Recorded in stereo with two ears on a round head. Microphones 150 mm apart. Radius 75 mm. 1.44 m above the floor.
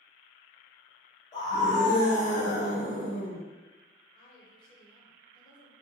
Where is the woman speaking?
25° left (ahead or behind), 0.9 m.